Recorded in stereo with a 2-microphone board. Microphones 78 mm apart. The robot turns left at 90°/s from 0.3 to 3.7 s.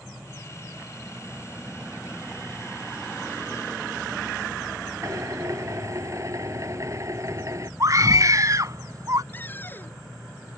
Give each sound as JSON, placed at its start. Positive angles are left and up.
{"t": 5.0, "sound": "a drill", "side_deg": -40}
{"t": 7.8, "sound": "a scream", "side_deg": -45}
{"t": 9.3, "sound": "a cupboard door", "side_deg": 25}